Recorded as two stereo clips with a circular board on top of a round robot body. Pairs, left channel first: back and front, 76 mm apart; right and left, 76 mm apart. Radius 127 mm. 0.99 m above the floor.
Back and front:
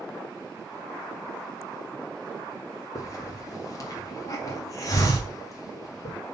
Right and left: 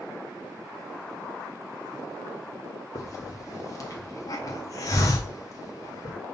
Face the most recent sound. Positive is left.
turn(degrees=-135)